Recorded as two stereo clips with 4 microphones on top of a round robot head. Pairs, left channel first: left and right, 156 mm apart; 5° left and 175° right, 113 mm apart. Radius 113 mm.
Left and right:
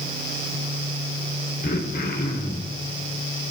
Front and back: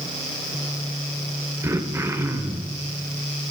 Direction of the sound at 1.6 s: 120° left.